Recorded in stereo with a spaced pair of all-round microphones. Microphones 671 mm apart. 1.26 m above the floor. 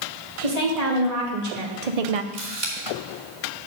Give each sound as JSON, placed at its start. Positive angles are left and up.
{"t": 0.4, "sound": "a woman speaking", "side_deg": -60, "distance_m": 3.0}
{"t": 2.3, "sound": "a camera shutter", "side_deg": -80, "distance_m": 2.0}